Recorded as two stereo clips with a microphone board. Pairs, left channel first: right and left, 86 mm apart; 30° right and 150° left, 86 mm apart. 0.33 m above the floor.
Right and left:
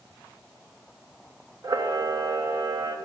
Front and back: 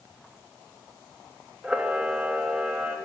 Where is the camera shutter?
80° left, 0.8 m.